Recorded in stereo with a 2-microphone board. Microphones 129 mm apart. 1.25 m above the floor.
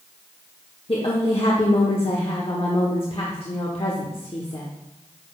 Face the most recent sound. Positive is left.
turn(degrees=45)  # may be behind; listen again after turning